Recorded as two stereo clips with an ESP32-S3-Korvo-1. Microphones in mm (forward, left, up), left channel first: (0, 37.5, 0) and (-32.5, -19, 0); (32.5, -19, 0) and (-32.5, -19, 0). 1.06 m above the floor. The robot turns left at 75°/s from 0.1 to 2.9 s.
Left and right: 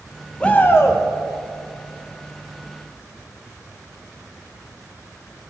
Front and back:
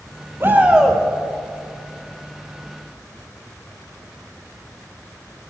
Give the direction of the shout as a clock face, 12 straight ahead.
8 o'clock.